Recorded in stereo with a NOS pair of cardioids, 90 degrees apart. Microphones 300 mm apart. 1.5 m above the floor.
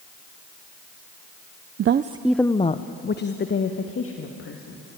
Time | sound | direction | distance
1.8 | a woman speaking | 50° right | 0.6 m